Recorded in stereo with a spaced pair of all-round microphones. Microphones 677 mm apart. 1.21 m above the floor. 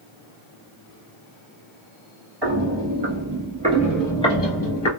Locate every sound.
2.4 s footsteps: 40° right (ahead or behind), 1.5 m; by 4.9 s 25° left (ahead or behind), 1.3 m